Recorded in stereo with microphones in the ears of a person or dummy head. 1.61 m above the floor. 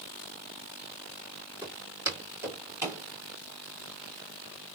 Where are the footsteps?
20° right (ahead or behind), 2.5 m; by 3.0 s 10° right (ahead or behind), 3 m.